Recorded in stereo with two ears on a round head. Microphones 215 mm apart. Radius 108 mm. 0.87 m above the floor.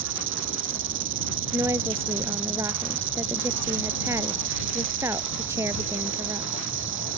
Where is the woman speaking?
10° right (ahead or behind).